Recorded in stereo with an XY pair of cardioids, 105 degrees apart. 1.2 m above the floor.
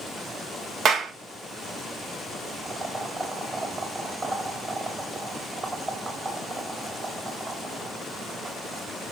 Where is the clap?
60° right, 1.6 m.